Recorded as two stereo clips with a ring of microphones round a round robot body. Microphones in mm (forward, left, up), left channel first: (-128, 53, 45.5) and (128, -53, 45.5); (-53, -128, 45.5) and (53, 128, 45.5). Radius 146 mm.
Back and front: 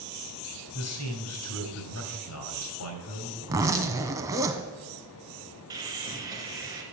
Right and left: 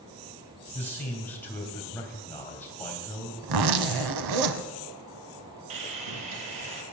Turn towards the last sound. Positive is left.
turn(degrees=55)